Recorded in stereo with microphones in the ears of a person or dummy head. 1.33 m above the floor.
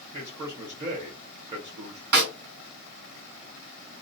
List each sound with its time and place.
0.1 s a man speaking: 20° right (ahead or behind), 1.0 m
2.1 s a snare drum: 55° right (ahead or behind), 1.5 m